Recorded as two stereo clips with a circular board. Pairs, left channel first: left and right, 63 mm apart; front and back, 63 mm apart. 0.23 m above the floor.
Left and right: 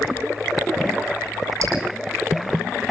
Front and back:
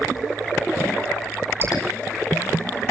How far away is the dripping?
About 10 m.